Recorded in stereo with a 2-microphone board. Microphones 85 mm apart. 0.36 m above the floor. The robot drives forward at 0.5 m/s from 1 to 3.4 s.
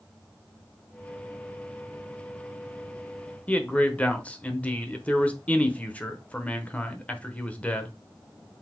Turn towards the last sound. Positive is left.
turn(degrees=15)  # may be behind; listen again after turning